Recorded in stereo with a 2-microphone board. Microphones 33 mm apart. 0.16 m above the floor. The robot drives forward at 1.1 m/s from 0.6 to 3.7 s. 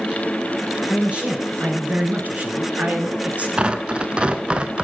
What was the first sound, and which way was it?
A man speaking, 30° right (ahead or behind).